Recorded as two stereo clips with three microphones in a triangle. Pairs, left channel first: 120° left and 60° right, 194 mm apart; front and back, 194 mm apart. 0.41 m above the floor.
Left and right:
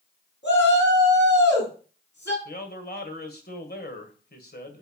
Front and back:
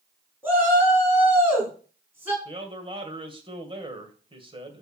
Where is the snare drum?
No snare drum in this recording.